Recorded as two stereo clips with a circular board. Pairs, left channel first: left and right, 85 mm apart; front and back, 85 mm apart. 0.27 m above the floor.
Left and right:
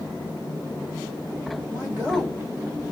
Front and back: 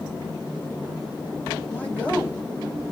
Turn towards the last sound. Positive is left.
turn(degrees=-55)